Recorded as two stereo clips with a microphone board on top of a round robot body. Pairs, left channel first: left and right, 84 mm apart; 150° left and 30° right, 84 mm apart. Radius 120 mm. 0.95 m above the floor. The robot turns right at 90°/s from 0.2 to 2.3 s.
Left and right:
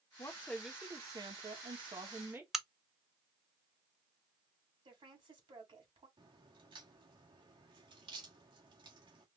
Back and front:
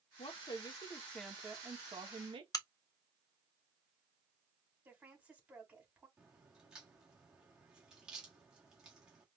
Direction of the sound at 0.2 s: 145° left.